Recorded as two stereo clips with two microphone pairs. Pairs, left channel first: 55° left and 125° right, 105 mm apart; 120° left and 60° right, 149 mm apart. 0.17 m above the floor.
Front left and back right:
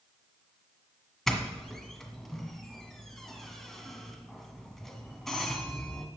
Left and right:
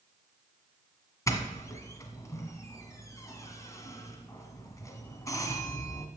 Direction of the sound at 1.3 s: 140° left.